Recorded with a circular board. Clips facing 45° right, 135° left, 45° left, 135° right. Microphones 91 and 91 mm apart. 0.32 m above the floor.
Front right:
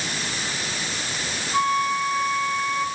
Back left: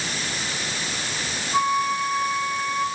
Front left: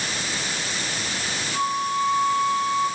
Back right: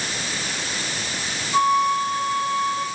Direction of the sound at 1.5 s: 145° right.